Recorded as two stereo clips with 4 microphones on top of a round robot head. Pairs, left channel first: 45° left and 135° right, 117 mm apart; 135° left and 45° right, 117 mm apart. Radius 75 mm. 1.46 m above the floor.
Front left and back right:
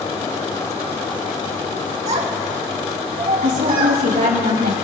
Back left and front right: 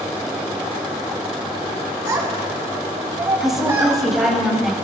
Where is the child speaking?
105° right, 3 m.